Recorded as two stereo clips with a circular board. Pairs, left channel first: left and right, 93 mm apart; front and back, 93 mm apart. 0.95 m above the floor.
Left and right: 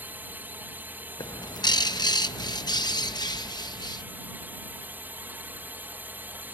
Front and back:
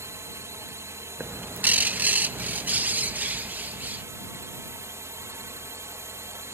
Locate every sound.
0.0 s a drone: 150° right
1.2 s a bird: 110° left